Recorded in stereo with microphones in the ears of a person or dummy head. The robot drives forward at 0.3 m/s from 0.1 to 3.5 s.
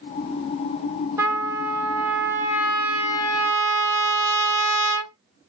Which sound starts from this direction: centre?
A trumpet, at 1.2 s.